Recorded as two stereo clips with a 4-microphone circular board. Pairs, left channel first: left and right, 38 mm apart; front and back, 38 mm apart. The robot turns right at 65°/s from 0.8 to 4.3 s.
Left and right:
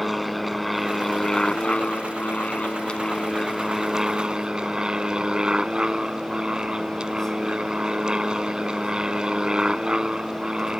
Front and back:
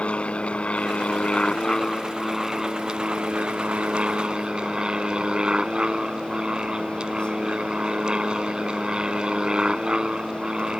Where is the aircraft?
5° right; by 10.8 s 140° right.